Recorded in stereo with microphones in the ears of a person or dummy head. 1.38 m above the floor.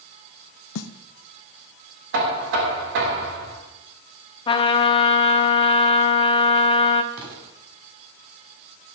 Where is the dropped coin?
No dropped coin in this recording.